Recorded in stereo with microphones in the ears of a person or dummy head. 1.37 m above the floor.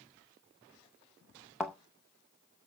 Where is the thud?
Centre (ahead or behind), 0.7 m.